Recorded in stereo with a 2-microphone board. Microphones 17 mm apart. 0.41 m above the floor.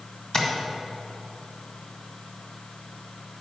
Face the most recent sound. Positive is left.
turn(degrees=35)  # may be behind; listen again after turning